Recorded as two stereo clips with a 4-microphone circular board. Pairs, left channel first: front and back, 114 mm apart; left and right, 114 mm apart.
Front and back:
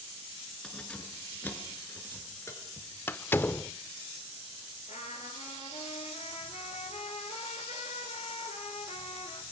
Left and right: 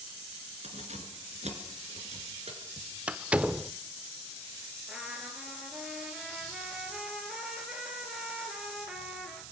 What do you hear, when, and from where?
0.6 s keys jangling: 80° right, 3.5 m; by 2.9 s 60° right, 4.5 m
3.1 s a door slam: 30° right, 0.5 m
4.9 s a trumpet: 5° right, 3 m